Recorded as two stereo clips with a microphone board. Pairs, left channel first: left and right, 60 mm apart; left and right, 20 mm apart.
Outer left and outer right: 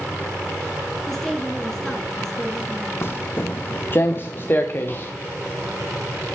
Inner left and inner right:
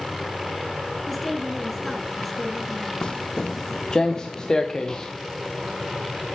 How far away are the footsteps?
About 0.7 m.